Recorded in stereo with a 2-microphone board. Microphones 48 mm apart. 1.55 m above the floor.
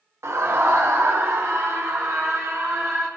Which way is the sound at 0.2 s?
90° right.